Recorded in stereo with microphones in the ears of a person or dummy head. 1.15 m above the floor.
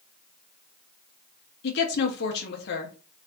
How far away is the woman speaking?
About 0.8 m.